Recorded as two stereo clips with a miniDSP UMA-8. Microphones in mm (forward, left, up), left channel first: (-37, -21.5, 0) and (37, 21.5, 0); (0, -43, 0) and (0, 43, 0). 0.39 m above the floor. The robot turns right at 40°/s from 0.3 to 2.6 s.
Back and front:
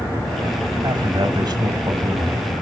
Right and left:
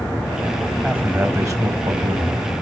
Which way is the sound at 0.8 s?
20° left.